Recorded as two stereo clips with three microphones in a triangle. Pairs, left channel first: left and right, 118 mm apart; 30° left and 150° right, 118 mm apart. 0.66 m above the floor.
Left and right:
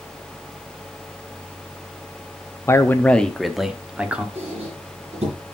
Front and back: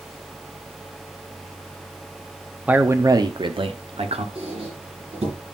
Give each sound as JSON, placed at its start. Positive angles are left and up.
{"t": 2.7, "sound": "a man speaking", "azimuth_deg": 140, "distance_m": 0.6}
{"t": 4.3, "sound": "a squeak", "azimuth_deg": -115, "distance_m": 3.5}